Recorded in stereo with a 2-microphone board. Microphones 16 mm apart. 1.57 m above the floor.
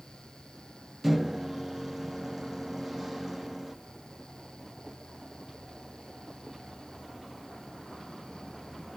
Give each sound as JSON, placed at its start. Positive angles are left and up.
{"t": 1.0, "sound": "a microwave", "side_deg": -15, "distance_m": 0.7}